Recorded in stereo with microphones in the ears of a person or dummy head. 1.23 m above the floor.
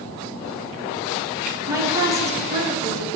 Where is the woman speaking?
15° right (ahead or behind), 0.9 m.